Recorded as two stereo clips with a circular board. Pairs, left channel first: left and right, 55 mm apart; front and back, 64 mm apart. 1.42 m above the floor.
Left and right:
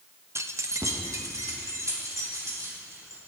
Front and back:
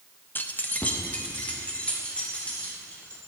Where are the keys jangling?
55° right, 0.7 m; by 3.2 s 70° right, 4.5 m.